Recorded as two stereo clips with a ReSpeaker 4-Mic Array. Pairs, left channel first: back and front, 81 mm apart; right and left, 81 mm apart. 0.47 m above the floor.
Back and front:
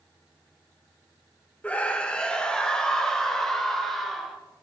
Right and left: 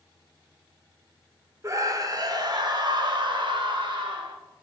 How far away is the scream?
About 1.3 m.